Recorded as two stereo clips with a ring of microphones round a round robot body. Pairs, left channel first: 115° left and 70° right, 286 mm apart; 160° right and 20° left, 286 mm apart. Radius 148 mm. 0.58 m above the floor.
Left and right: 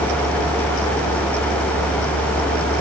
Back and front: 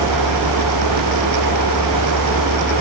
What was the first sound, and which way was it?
Only background noise.